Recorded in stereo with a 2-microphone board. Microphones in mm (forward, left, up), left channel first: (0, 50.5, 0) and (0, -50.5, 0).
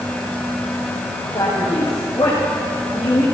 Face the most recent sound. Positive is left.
turn(degrees=50)  # may be behind; listen again after turning